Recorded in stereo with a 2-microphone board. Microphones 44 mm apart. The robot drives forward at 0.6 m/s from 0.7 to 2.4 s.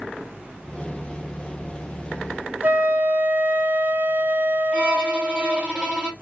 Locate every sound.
2.6 s a flute: 45° right (ahead or behind), 0.6 m
4.7 s a violin: 20° right (ahead or behind), 0.9 m